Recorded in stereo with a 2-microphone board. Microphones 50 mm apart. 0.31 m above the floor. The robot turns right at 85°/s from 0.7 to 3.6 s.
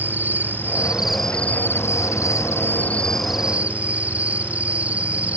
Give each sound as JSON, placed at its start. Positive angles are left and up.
{"t": 0.0, "sound": "an insect", "azimuth_deg": -40}